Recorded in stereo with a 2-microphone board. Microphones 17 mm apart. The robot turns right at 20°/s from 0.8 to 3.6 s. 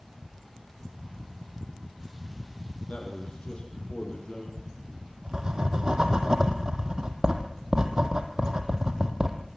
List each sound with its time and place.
2.9 s a man speaking: 60° left (ahead or behind), 6.5 m; by 4.5 s 50° left (ahead or behind), 6.5 m
4.6 s writing: 40° right (ahead or behind), 2.5 m